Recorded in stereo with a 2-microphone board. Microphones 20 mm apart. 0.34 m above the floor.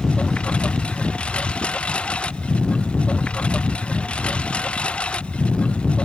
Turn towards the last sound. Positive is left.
turn(degrees=85)